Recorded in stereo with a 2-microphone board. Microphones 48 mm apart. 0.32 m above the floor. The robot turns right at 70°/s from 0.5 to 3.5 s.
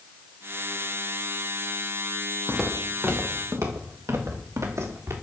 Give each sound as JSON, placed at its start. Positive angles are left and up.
{"t": 2.5, "sound": "footsteps", "side_deg": 10, "distance_m": 3.0}